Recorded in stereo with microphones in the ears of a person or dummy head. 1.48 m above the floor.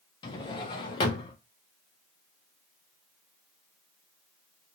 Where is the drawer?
25° left (ahead or behind), 0.6 m.